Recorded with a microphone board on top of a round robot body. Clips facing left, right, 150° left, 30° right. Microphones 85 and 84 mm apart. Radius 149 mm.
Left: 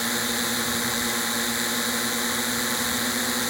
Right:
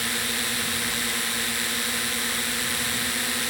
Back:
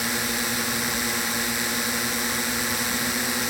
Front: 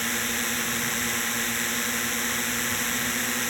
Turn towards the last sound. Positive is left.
turn(degrees=85)